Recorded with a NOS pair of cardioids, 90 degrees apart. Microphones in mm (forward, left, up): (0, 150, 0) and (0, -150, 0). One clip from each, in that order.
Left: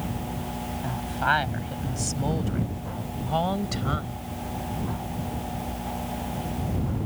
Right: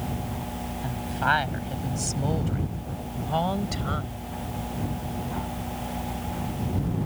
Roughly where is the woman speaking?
Ahead.